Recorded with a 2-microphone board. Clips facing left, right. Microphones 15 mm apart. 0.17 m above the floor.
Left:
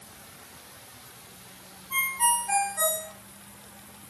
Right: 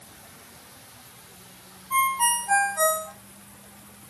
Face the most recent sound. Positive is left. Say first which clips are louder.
# right 3 dB
turn(degrees=-20)  # may be behind; listen again after turning